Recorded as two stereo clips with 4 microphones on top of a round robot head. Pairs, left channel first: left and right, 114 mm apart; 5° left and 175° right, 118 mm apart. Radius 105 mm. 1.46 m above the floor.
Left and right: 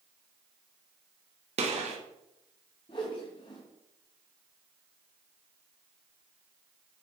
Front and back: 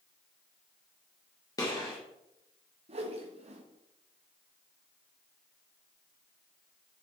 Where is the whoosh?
155° left, 1.3 m.